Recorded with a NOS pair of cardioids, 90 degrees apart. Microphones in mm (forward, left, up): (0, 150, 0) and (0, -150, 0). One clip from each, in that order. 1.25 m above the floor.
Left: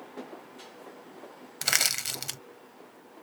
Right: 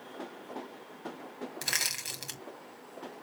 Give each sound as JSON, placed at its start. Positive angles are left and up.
{"t": 1.6, "sound": "crushing", "azimuth_deg": 40, "distance_m": 1.3}